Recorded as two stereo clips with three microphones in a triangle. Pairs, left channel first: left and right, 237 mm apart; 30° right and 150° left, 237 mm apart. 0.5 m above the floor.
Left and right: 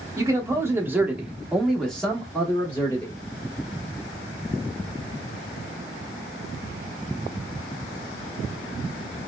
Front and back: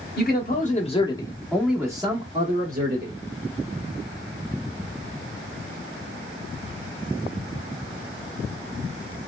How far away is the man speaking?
About 1.0 m.